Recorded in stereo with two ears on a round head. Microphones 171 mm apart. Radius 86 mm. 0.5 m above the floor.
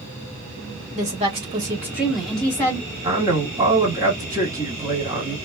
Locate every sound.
0.9 s a woman speaking: 35° right (ahead or behind), 1.5 m; by 2.9 s 20° left (ahead or behind), 1.3 m
3.0 s a man speaking: 20° right (ahead or behind), 1.4 m